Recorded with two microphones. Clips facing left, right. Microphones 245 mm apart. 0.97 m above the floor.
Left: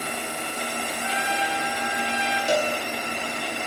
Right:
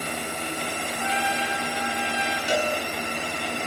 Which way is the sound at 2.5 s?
50° left (ahead or behind).